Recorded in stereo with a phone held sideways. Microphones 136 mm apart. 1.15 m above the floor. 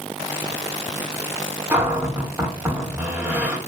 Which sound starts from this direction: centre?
A cupboard door, at 1.7 s.